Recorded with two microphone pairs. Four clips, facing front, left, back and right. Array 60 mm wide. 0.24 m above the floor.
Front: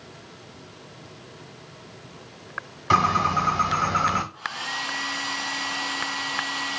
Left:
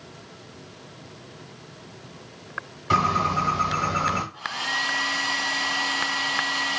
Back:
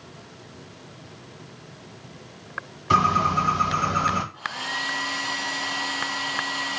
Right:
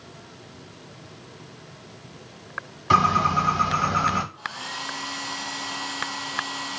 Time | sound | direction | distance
2.9 | a bird | 45° right | 1.7 m
4.3 | a hair dryer | 90° left | 1.9 m